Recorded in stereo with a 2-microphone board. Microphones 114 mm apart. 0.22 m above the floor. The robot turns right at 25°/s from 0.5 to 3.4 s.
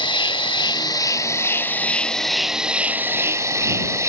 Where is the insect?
135° left; by 4.1 s 155° right.